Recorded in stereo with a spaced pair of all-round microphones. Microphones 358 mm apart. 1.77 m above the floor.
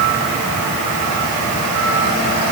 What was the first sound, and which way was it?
Only background noise.